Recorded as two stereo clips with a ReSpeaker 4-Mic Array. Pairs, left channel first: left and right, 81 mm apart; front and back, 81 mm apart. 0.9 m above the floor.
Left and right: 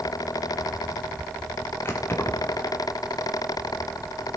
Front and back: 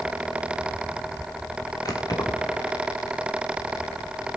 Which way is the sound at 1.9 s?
30° left.